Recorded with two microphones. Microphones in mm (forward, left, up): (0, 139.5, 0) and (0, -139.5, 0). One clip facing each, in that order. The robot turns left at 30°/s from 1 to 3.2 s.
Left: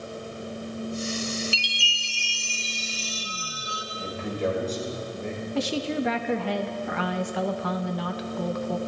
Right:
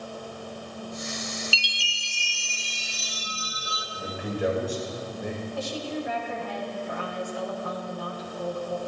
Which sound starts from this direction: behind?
A chime, at 1.5 s.